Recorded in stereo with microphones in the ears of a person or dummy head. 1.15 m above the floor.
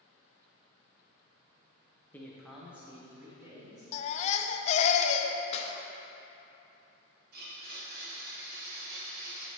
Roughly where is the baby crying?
Left.